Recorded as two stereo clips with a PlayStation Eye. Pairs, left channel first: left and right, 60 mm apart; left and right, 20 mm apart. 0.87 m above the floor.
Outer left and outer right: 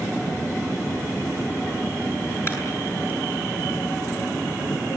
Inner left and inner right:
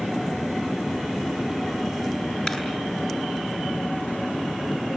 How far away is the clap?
About 9 m.